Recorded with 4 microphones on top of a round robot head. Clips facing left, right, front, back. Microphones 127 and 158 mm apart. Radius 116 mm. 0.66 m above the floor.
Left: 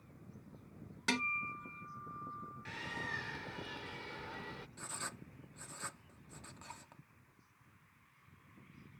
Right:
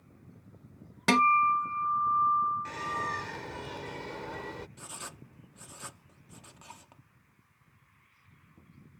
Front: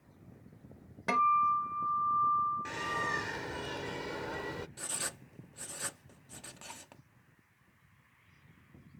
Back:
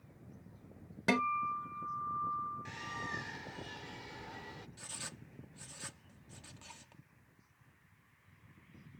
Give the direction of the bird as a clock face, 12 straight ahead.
1 o'clock.